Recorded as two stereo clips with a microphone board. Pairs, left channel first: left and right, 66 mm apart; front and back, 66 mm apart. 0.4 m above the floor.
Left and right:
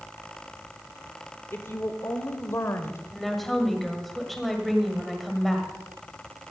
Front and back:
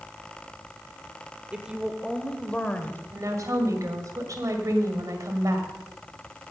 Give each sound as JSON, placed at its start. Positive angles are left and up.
{"t": 1.5, "sound": "a woman speaking", "azimuth_deg": 115, "distance_m": 1.2}
{"t": 3.1, "sound": "a woman speaking", "azimuth_deg": 175, "distance_m": 2.0}